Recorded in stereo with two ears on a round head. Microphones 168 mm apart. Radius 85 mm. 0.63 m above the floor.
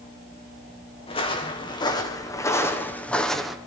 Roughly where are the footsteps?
Left.